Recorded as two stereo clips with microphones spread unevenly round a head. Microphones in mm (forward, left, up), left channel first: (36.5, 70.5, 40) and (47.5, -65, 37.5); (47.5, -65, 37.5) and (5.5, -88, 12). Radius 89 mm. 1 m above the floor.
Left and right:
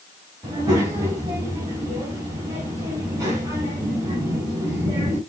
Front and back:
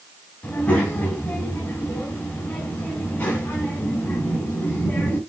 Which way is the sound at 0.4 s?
20° right.